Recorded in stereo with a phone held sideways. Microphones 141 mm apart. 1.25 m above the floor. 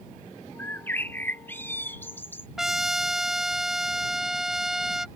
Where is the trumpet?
Centre (ahead or behind).